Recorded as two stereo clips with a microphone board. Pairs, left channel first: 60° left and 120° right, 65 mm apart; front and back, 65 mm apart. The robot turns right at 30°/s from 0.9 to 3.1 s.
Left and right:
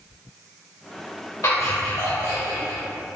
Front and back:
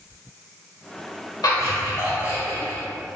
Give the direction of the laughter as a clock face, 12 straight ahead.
11 o'clock.